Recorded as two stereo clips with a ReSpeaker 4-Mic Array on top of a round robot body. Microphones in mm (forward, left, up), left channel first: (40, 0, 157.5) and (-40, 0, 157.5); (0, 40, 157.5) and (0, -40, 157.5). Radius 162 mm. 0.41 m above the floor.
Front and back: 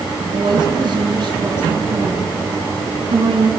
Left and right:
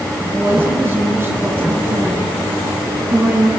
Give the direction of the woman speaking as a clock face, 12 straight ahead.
5 o'clock.